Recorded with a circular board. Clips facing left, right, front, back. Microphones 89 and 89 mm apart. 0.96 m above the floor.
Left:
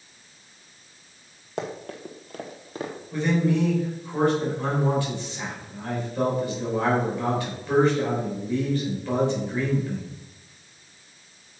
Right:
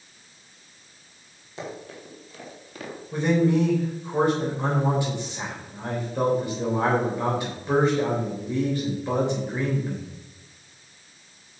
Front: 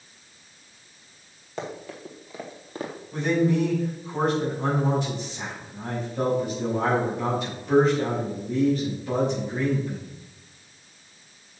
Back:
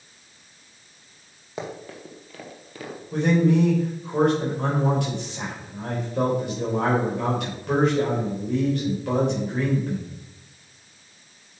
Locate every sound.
1.6 s running footsteps: 100° left, 1.9 m; by 2.9 s 35° left, 1.5 m
3.1 s a man speaking: 160° right, 3 m